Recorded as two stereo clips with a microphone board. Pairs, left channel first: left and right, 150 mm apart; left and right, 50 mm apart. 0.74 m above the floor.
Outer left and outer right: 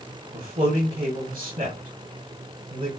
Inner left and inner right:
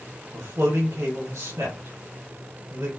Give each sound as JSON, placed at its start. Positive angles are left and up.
{"t": 0.3, "sound": "a man speaking", "side_deg": -75, "distance_m": 3.5}